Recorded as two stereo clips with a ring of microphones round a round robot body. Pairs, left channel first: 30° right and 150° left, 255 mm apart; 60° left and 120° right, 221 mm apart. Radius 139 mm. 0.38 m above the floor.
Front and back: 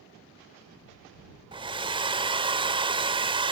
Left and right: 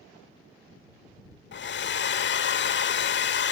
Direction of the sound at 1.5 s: 80° left.